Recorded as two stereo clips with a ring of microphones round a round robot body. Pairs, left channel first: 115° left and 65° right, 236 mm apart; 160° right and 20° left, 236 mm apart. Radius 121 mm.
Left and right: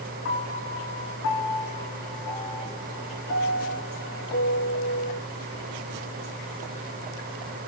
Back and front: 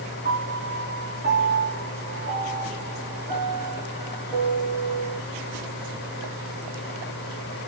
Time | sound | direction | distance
0.2 | a piano | 80° left | 3.5 m